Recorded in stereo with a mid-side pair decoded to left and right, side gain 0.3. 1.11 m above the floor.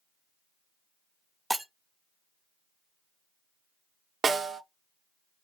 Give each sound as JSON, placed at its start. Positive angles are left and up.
{"t": 1.5, "sound": "breaking glass", "azimuth_deg": -10, "distance_m": 0.8}
{"t": 4.2, "sound": "a snare drum", "azimuth_deg": -65, "distance_m": 0.5}